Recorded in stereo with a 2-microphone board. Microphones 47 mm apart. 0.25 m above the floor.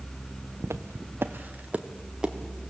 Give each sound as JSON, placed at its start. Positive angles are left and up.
{"t": 0.6, "sound": "footsteps", "side_deg": -80, "distance_m": 1.1}